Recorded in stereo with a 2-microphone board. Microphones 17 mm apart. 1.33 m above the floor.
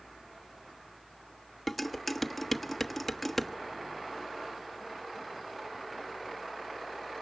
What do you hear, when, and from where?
1.7 s dishes clattering: 5° left (ahead or behind), 1.2 m